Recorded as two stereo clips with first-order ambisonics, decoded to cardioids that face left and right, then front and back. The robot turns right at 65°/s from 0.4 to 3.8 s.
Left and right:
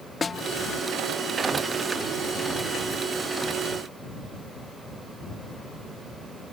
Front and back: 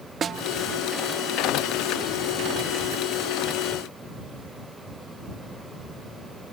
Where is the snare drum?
150° left.